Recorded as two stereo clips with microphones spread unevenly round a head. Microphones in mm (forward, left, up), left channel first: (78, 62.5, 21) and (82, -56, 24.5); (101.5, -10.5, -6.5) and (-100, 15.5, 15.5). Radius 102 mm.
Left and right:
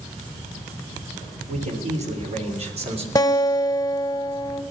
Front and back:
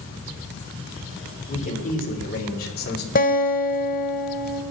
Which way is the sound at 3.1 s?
35° left.